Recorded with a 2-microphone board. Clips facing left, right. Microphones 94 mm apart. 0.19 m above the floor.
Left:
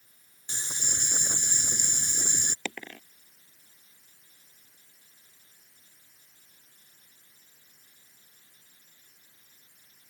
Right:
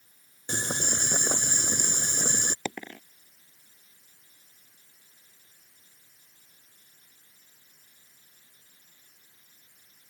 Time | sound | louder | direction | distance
0.5 | boiling | right 9 dB | 65° right (ahead or behind) | ?
2.6 | a dropped coin | right 3 dB | 15° right (ahead or behind) | ?